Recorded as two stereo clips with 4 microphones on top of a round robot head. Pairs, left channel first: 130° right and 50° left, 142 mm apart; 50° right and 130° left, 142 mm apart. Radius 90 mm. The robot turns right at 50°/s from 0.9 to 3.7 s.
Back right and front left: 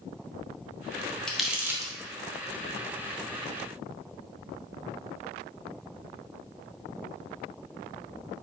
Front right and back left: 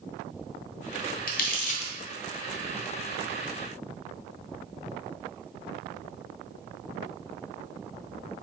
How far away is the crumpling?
About 0.7 m.